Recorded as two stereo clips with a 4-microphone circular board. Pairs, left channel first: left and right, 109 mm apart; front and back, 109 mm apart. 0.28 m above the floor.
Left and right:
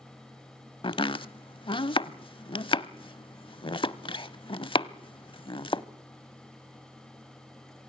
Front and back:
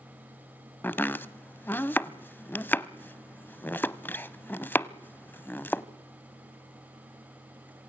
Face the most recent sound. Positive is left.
turn(degrees=65)